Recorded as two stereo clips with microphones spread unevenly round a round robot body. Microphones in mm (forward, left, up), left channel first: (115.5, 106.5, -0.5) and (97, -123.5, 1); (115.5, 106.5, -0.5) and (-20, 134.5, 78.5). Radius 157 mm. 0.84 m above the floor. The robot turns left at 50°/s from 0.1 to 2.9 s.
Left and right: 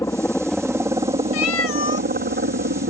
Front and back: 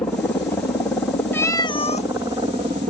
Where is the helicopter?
15° left; by 2.9 s 125° right.